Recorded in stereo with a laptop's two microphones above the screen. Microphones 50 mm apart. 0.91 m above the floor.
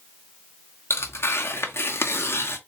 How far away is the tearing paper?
About 0.7 m.